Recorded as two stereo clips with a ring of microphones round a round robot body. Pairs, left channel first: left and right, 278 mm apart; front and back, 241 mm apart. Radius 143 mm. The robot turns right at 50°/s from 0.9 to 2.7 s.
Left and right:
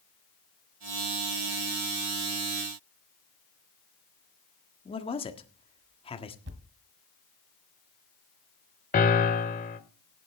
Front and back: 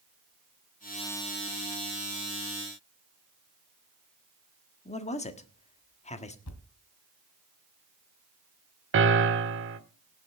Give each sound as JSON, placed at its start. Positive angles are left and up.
{"t": 4.8, "sound": "a man speaking", "azimuth_deg": 35, "distance_m": 1.5}
{"t": 6.5, "sound": "a thud", "azimuth_deg": -35, "distance_m": 1.4}
{"t": 8.9, "sound": "a piano", "azimuth_deg": 150, "distance_m": 1.3}